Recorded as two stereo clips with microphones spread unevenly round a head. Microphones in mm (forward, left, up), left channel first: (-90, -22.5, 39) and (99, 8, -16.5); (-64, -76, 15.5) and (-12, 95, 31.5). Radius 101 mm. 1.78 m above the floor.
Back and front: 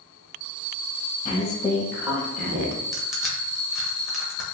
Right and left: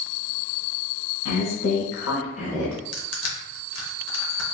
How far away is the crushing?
About 0.8 m.